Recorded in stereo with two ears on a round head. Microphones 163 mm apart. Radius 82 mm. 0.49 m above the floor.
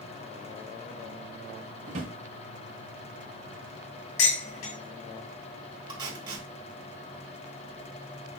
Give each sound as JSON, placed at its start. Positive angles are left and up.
{"t": 1.9, "sound": "a drawer", "side_deg": -40, "distance_m": 1.2}
{"t": 4.2, "sound": "dishes clattering", "side_deg": 80, "distance_m": 3.0}
{"t": 5.9, "sound": "tape being pulled", "side_deg": -25, "distance_m": 1.9}